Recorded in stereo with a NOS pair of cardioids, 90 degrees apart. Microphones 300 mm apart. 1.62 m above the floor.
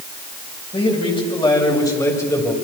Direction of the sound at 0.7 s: 20° left.